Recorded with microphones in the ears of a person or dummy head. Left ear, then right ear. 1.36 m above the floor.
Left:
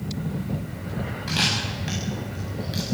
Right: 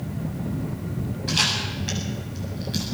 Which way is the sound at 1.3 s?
25° left (ahead or behind).